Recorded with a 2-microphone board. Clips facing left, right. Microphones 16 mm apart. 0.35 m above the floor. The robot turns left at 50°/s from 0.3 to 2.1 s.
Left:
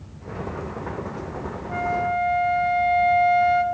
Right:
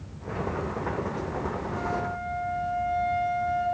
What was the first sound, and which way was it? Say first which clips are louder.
A flute: left 11 dB; 50° left (ahead or behind).